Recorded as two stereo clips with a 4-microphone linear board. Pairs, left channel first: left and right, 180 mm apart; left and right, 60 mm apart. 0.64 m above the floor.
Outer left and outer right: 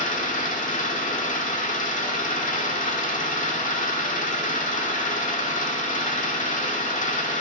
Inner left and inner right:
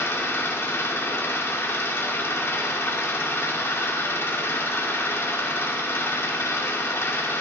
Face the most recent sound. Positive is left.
turn(degrees=45)  # may be behind; listen again after turning